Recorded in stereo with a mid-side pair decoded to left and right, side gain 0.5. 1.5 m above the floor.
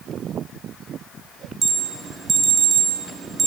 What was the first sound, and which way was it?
An alarm, 40° right.